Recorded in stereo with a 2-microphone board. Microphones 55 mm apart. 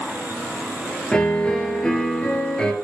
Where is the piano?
15° left (ahead or behind), 0.8 m.